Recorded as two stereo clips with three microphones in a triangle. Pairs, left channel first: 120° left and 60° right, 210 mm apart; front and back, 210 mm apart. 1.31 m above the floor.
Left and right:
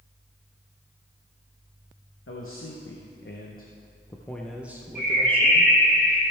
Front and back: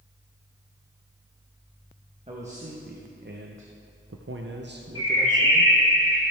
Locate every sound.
2.3 s a man speaking: 125° left, 1.3 m; by 5.7 s 120° right, 1.4 m
5.0 s a bird: 170° left, 2.5 m